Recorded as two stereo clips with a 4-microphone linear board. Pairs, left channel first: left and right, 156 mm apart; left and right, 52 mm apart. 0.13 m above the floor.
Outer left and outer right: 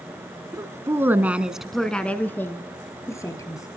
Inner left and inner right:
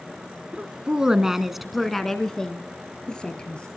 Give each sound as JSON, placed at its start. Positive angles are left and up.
{"t": 0.5, "sound": "a woman speaking", "side_deg": -20, "distance_m": 1.5}